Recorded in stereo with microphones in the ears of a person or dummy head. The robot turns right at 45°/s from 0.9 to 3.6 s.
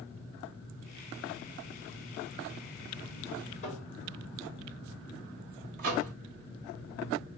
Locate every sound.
3.6 s tapping: 45° left (ahead or behind), 3 m
5.8 s a microwave: 45° right (ahead or behind), 1.0 m